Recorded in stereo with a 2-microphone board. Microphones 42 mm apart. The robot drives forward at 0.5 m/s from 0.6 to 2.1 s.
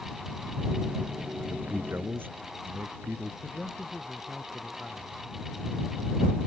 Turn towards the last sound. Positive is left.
turn(degrees=-10)  # may be behind; listen again after turning